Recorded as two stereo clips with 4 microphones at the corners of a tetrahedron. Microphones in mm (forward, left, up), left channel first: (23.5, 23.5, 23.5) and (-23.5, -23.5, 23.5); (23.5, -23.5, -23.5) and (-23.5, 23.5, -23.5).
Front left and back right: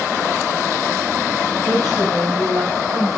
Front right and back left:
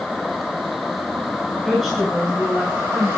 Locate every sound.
1.6 s a woman speaking: 130° right, 2.5 m; by 3.2 s 115° right, 2.0 m